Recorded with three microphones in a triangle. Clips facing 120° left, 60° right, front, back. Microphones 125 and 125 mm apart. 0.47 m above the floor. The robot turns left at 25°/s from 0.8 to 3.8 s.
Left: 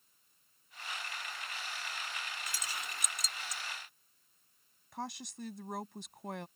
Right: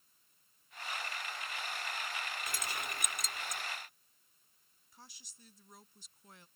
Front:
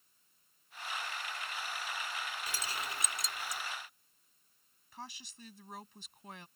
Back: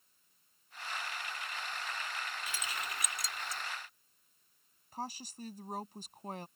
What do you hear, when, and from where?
2.5 s keys jangling: 45° right; by 3.6 s 75° right
4.9 s a woman speaking: 135° left